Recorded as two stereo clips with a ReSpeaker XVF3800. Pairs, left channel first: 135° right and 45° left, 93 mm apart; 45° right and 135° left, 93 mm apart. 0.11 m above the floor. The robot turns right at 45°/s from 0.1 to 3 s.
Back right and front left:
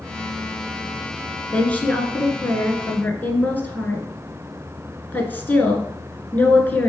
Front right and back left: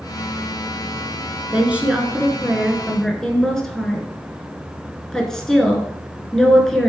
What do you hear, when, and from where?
1.5 s a woman speaking: 175° left, 1.2 m; by 6.9 s 120° right, 1.2 m